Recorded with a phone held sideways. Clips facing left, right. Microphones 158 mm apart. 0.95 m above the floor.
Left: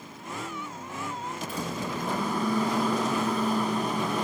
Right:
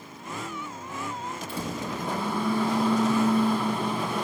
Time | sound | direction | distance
1.5 | a microwave | 30° right (ahead or behind) | 5 m